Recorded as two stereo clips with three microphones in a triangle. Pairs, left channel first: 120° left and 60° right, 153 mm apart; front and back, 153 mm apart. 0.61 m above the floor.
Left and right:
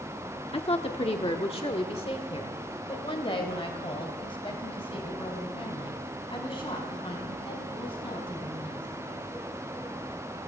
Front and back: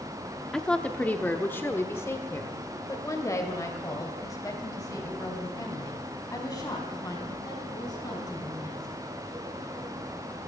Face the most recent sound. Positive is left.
turn(degrees=65)